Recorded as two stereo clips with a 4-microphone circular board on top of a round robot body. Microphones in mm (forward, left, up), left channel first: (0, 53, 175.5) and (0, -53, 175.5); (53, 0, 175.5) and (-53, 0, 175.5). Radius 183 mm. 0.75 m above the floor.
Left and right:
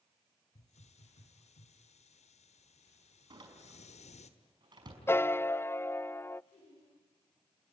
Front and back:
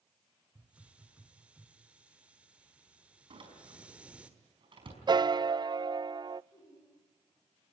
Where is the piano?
150° left, 0.5 m.